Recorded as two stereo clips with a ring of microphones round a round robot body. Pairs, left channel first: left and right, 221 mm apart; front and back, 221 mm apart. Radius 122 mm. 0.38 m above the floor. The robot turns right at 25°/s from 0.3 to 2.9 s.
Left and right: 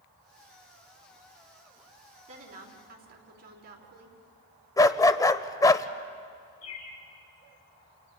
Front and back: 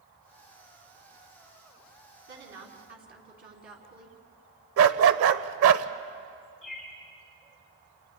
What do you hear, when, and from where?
2.3 s a woman speaking: 150° right, 4.5 m; by 4.2 s 135° right, 4.5 m
4.8 s a dog barking: 165° left, 0.7 m
6.6 s a bird: 90° left, 4 m